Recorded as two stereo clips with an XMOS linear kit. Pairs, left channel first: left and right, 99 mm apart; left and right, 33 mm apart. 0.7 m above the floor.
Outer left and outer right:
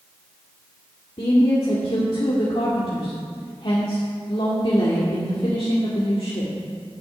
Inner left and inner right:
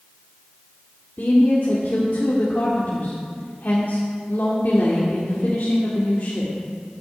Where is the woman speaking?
65° left (ahead or behind), 1.9 m.